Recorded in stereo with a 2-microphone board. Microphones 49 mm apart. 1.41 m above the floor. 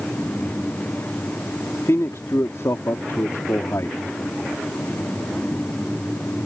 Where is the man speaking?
70° left (ahead or behind).